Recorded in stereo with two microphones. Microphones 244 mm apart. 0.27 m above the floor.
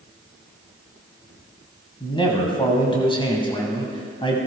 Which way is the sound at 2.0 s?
20° left (ahead or behind).